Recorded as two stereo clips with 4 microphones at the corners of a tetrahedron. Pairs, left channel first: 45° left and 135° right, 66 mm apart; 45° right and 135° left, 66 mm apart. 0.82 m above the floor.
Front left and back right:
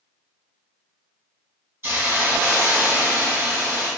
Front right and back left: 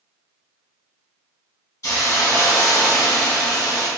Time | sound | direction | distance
1.8 | a hiss | 85° right | 1.2 m